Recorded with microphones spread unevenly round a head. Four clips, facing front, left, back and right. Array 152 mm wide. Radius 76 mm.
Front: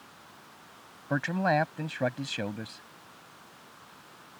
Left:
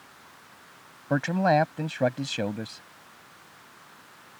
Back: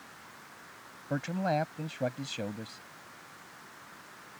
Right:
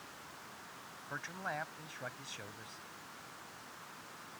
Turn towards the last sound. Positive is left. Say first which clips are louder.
# left 20 dB, front 4 dB
turn(degrees=80)